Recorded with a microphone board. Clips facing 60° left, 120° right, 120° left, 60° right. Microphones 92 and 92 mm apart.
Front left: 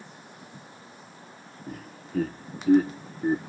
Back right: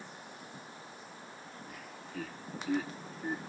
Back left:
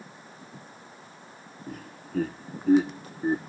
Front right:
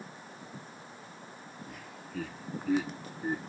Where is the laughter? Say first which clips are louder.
Front left 7 dB, back left 5 dB; 90° left; by 3.4 s 80° left.